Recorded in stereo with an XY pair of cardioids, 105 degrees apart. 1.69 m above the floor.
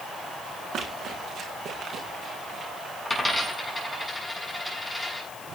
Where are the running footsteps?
55° right, 7 m; by 2.7 s 40° right, 8 m.